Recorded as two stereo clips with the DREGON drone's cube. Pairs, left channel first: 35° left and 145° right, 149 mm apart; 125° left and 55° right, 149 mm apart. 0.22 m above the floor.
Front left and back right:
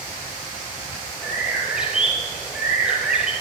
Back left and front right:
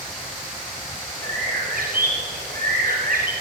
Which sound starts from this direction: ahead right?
A bird, at 1.2 s.